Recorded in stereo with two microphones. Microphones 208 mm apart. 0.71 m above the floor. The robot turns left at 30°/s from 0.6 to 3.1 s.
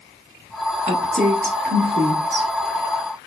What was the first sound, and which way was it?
A woman speaking, 35° right (ahead or behind).